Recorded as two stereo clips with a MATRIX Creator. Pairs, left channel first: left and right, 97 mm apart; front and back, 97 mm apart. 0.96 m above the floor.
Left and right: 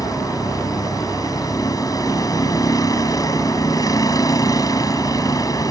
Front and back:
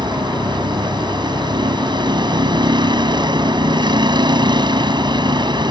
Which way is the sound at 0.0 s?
140° left.